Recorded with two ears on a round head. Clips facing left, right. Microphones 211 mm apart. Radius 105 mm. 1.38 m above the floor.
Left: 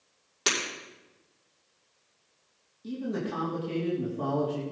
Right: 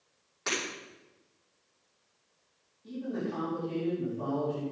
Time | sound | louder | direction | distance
0.5 | breaking glass | left 2 dB | 50° left (ahead or behind) | 6 m
2.8 | a man speaking | left 2 dB | 65° left (ahead or behind) | 3.5 m